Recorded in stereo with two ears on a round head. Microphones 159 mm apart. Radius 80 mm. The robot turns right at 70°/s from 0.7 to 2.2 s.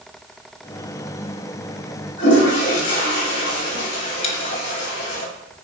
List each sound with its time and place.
2.2 s a toilet flushing: 75° left (ahead or behind), 4 m
4.2 s a dropped coin: 35° left (ahead or behind), 1.2 m